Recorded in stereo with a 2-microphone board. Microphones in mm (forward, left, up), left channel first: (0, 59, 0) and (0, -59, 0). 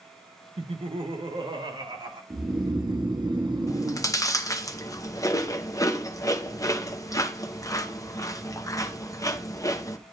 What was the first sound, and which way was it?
Laughter, 60° right (ahead or behind).